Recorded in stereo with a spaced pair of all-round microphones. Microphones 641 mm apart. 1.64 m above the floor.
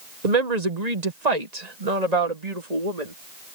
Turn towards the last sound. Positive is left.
turn(degrees=-80)